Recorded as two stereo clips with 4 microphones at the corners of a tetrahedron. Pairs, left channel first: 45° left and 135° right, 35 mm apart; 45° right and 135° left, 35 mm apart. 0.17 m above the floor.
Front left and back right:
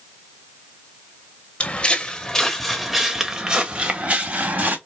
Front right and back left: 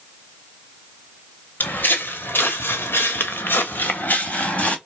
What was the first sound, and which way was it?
Footsteps, 10° right.